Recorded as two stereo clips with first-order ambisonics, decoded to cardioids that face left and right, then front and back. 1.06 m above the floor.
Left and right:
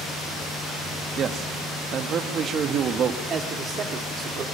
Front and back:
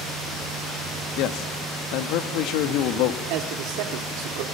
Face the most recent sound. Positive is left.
turn(degrees=-155)